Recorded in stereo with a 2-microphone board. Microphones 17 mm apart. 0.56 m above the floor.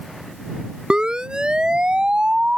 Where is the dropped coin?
No dropped coin in this recording.